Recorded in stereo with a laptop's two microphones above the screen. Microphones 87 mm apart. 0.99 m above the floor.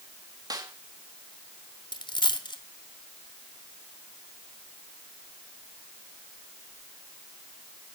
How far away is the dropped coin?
About 1.4 m.